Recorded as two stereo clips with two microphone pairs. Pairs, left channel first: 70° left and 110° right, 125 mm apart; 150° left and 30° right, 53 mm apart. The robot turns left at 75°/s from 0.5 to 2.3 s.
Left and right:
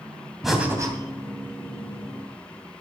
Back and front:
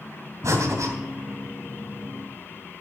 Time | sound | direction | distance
0.4 | breathing | 20° right | 2.5 m